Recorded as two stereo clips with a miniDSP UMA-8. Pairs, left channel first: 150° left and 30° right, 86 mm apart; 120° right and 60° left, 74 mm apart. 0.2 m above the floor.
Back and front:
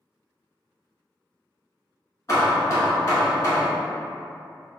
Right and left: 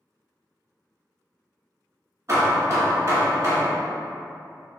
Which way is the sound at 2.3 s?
105° left.